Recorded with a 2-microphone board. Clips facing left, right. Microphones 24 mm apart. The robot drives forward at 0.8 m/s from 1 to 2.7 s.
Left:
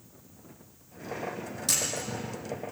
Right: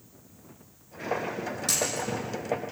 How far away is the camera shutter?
About 6.5 m.